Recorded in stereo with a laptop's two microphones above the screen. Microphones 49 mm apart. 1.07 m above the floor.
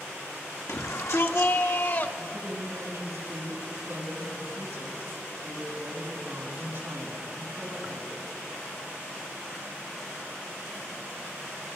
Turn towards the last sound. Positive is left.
turn(degrees=-40)  # may be behind; listen again after turning